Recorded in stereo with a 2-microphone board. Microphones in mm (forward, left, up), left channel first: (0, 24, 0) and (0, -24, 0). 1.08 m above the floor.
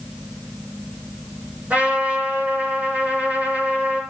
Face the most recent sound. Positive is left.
turn(degrees=-35)  # may be behind; listen again after turning